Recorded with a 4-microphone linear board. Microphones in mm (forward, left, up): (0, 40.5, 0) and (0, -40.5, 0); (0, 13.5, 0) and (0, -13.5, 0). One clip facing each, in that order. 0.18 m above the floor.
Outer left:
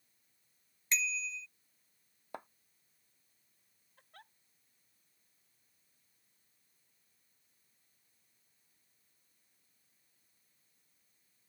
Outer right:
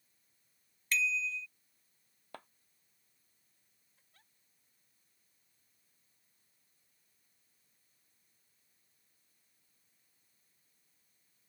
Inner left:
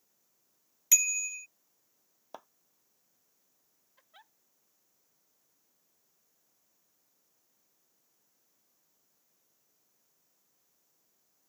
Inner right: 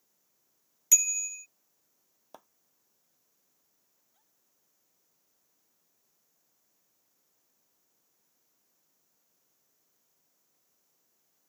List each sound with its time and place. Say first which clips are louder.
0.9 s a bicycle bell: outer right 4 dB, inner right 1 dB; 20° left (ahead or behind)
2.3 s a clap: outer left 5 dB, inner left 5 dB; 20° left (ahead or behind)
4.0 s a giggle: outer left 14 dB, inner left 20 dB; 70° left (ahead or behind)